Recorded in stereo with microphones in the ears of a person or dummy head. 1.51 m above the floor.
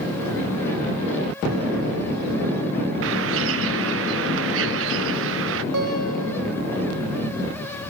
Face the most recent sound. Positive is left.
turn(degrees=-75)  # may be behind; listen again after turning